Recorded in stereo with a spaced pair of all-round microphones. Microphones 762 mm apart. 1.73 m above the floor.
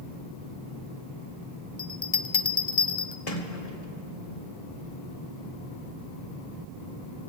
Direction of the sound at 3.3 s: 50° left (ahead or behind).